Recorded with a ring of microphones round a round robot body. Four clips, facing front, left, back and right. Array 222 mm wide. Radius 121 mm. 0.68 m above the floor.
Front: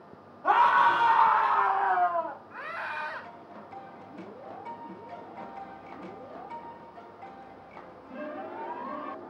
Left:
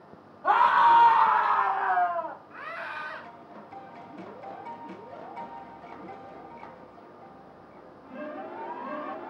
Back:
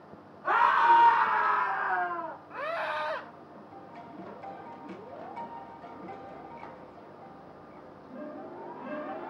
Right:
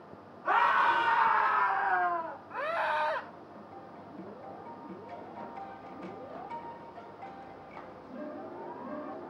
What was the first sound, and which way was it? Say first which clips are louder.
A scream: left 6 dB, front 1 dB; 50° left.